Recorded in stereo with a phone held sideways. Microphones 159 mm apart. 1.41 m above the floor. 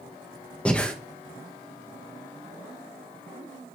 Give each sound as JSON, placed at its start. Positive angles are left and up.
{"t": 0.7, "sound": "breathing", "side_deg": 5, "distance_m": 1.2}